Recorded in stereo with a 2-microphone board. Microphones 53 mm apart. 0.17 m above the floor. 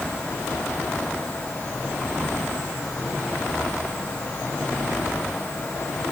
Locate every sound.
Only background noise.